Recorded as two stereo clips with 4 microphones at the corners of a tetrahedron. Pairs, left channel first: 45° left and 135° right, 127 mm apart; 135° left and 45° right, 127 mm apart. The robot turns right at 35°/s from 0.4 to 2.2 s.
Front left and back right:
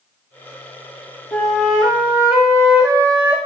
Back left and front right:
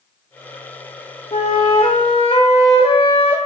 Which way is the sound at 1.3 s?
125° left.